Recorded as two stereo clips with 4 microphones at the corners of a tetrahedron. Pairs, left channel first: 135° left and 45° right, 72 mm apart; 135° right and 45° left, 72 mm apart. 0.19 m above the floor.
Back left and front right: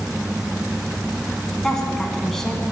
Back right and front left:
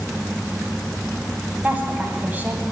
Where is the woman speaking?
65° left, 1.0 m.